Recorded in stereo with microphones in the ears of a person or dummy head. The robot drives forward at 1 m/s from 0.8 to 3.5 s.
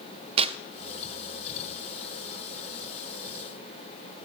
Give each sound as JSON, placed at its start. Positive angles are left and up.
{"t": 0.4, "sound": "tearing paper", "side_deg": -30, "distance_m": 0.5}